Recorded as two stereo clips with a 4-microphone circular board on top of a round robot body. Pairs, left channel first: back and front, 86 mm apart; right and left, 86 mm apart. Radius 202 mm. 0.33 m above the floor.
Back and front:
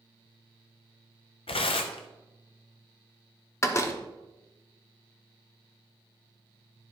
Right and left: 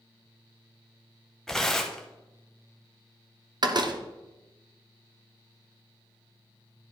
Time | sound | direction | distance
1.5 | tearing paper | 175° right | 0.6 m
3.6 | a door slam | 125° left | 1.0 m